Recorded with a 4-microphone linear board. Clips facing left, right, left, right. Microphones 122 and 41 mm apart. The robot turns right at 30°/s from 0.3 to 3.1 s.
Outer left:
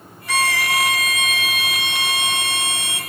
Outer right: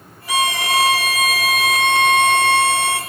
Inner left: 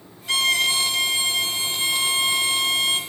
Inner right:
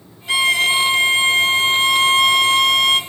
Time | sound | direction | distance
0.3 | a violin | 165° right | 0.6 m